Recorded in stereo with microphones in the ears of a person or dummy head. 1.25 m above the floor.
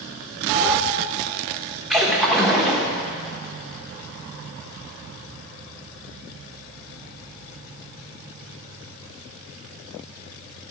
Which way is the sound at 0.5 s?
10° right (ahead or behind).